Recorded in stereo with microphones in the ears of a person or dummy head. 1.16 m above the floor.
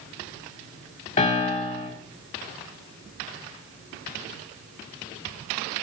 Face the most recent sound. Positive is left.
turn(degrees=40)  # may be behind; listen again after turning